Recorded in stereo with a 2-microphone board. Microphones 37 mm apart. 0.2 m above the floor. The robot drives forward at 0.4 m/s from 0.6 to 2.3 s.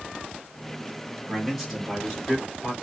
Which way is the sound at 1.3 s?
5° left (ahead or behind).